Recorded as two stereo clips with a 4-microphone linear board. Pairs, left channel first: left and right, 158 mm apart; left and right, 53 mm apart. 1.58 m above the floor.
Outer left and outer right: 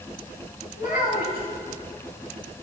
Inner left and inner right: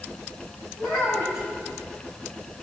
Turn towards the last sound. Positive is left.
turn(degrees=80)